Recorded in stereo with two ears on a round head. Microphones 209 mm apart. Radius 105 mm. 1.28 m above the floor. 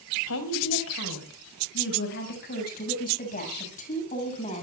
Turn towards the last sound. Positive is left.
turn(degrees=30)  # may be behind; listen again after turning